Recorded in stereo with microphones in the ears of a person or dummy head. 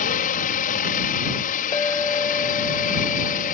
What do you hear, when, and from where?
0.0 s a helicopter: 45° left (ahead or behind)
1.7 s a clink: 20° left (ahead or behind)